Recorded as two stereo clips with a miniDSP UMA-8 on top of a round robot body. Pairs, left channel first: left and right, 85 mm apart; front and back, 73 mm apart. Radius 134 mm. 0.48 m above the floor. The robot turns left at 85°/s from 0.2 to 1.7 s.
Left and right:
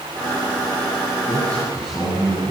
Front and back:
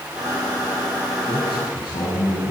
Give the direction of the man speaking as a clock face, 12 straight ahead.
10 o'clock.